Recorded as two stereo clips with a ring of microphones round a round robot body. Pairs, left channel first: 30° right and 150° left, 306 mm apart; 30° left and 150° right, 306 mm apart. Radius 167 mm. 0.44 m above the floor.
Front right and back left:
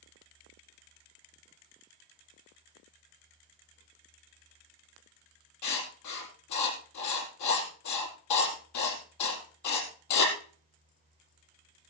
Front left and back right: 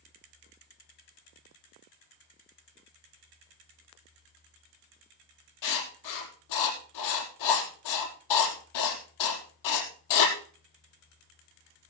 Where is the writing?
5° left, 4 m.